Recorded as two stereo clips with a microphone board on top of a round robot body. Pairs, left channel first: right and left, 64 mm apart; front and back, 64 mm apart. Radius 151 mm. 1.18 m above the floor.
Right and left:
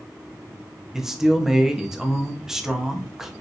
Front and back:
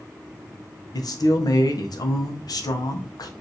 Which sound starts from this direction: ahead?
A man speaking, at 0.9 s.